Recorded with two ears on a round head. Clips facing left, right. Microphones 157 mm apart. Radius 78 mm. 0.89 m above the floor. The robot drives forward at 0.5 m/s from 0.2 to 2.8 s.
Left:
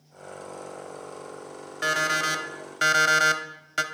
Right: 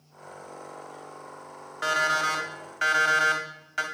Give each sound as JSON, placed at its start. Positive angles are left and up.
{"t": 1.8, "sound": "an alarm clock", "side_deg": 30, "distance_m": 1.0}